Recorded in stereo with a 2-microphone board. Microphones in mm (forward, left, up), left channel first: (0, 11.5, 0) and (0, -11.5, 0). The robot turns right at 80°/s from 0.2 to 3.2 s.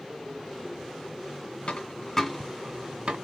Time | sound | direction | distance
1.7 | a dropped coin | 55° left (ahead or behind) | 1.7 m